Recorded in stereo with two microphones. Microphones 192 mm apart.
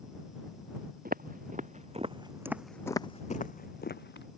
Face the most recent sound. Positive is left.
turn(degrees=70)  # may be behind; listen again after turning